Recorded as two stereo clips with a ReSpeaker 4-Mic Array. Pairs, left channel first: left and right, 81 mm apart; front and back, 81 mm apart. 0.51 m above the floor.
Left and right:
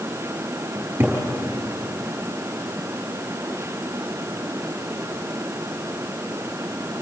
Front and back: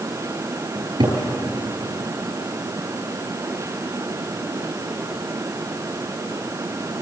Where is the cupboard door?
155° right, 6 m.